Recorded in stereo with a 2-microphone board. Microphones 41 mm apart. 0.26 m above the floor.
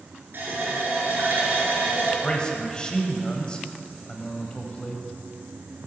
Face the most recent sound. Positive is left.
turn(degrees=20)  # may be behind; listen again after turning